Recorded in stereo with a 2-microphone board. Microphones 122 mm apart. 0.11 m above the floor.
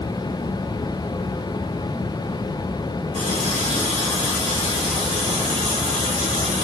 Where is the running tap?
50° right (ahead or behind), 2 m.